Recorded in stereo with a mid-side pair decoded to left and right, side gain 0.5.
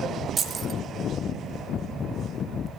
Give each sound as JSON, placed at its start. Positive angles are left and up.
{"t": 0.4, "sound": "keys jangling", "azimuth_deg": -35, "distance_m": 2.0}